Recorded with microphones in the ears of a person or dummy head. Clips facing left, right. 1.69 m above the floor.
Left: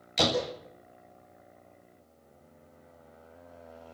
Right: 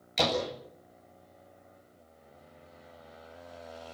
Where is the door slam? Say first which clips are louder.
Left 1 dB; centre (ahead or behind), 8 m.